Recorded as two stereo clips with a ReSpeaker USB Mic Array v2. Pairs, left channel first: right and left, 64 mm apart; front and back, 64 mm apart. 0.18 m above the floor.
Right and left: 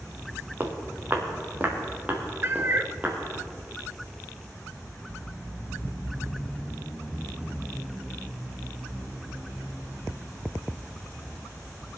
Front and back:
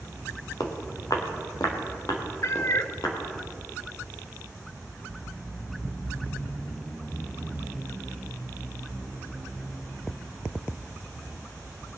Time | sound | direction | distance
0.6 | footsteps | 30° left | 2.5 m
2.4 | a cat meowing | 35° left | 0.7 m